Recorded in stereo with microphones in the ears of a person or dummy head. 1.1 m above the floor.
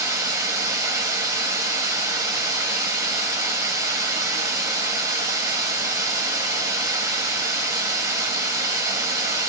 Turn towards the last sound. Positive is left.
turn(degrees=-20)  # may be behind; listen again after turning